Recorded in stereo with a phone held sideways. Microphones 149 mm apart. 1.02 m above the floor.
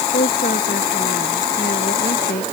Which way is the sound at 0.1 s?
85° left.